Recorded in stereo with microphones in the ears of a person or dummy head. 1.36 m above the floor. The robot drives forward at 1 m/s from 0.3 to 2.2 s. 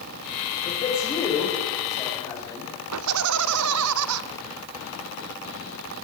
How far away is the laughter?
About 0.6 m.